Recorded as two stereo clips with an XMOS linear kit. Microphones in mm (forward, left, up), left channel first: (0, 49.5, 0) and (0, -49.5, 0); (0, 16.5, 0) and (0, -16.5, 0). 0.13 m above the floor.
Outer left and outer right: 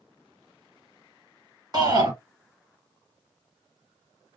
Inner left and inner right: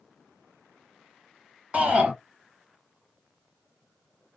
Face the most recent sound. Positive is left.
turn(degrees=-40)  # may be behind; listen again after turning